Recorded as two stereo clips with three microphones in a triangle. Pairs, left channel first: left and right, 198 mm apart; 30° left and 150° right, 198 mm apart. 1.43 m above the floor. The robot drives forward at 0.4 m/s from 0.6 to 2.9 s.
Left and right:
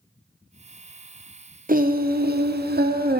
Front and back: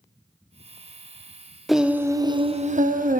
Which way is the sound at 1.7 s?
60° right.